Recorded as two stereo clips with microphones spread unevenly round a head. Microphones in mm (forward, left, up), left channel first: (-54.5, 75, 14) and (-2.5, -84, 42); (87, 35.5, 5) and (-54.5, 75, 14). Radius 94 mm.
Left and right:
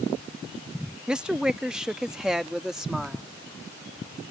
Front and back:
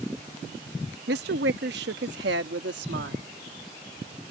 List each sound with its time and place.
1.1 s a woman speaking: 155° right; by 3.2 s 160° right